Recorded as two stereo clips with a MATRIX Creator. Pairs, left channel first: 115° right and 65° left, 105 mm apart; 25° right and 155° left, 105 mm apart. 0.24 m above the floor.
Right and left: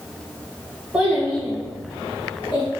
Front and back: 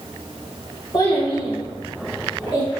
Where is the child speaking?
5° right, 0.7 m; by 2.7 s 65° right, 1.4 m.